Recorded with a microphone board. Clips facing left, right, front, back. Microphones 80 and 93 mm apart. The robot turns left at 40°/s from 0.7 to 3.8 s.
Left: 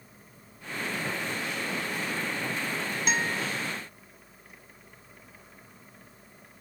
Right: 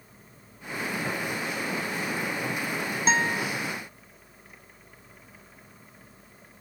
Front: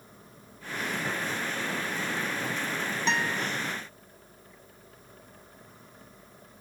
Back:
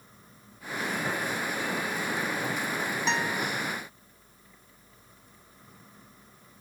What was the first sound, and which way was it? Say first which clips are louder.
A guitar: right 5 dB, front 1 dB; 95° right.